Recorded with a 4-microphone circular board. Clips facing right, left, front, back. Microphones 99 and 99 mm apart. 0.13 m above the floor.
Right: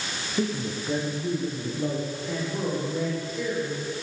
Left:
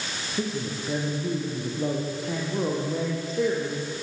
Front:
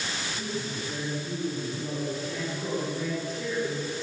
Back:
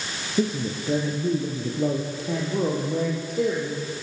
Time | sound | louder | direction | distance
0.4 | a man speaking | right 2 dB, back 12 dB | 170° right | 4.5 m